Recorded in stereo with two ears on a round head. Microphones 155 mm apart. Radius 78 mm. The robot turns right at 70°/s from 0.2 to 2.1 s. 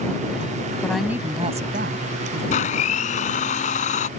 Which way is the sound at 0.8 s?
170° left.